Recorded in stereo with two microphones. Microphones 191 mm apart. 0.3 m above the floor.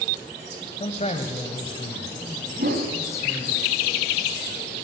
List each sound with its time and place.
0.8 s a man speaking: 35° left (ahead or behind), 1.9 m; by 3.6 s 10° left (ahead or behind), 4 m
2.6 s a whoosh: 55° right (ahead or behind), 2.5 m